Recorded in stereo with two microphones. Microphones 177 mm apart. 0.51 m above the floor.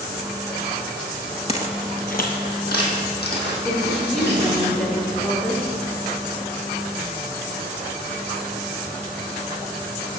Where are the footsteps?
35° left (ahead or behind), 0.5 m; by 4.7 s 70° left (ahead or behind), 2.5 m.